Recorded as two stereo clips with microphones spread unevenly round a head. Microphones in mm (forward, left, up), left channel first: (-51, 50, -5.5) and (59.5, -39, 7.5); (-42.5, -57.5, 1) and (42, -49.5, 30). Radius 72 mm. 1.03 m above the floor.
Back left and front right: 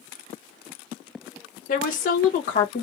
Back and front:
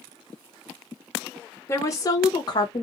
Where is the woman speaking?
140° left, 0.8 m; by 2.8 s 175° left, 1.2 m.